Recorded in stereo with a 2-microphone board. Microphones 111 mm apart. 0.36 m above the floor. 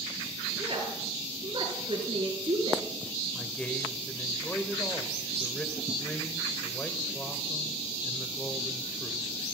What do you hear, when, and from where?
0.6 s a woman speaking: 50° right (ahead or behind), 5 m
3.3 s a man speaking: 10° left (ahead or behind), 1.7 m